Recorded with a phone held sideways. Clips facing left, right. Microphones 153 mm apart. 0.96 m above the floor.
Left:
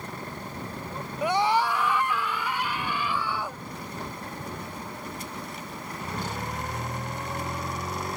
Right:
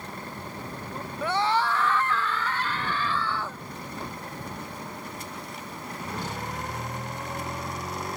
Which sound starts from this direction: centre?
A scream, at 1.2 s.